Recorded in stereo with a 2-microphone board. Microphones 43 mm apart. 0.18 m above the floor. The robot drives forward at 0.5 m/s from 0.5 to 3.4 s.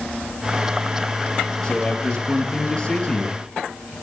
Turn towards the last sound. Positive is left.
turn(degrees=25)  # may be behind; listen again after turning